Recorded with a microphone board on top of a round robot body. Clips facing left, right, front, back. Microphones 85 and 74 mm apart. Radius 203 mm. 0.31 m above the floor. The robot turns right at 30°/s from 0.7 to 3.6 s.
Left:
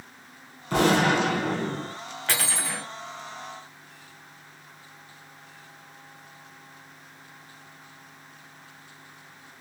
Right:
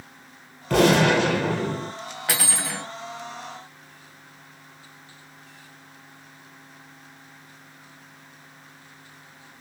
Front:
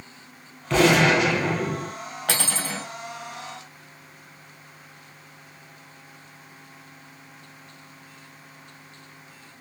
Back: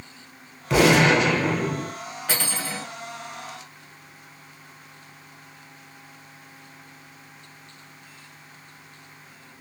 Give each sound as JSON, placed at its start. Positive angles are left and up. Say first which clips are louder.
{"t": 0.7, "sound": "a gunshot", "louder": "right 3 dB, back 1 dB", "azimuth_deg": -100, "distance_m": 2.0}
{"t": 2.3, "sound": "cutlery clinking", "louder": "right 1 dB, front 1 dB", "azimuth_deg": -15, "distance_m": 1.8}